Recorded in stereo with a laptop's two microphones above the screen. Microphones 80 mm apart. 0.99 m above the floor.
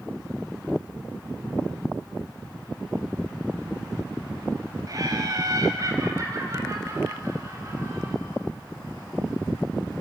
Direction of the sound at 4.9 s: 50° right (ahead or behind).